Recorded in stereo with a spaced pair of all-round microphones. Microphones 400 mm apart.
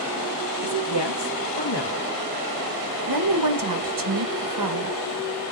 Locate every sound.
0.6 s a woman speaking: 85° left, 1.1 m
3.1 s a woman speaking: 55° right (ahead or behind), 0.7 m